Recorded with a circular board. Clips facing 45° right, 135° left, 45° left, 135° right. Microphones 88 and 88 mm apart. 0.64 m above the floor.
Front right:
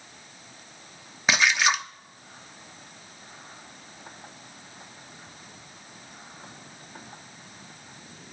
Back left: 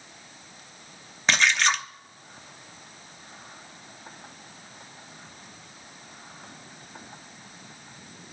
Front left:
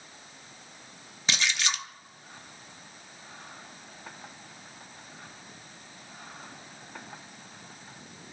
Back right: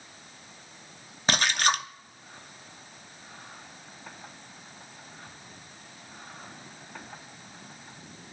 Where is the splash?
125° right, 0.6 m.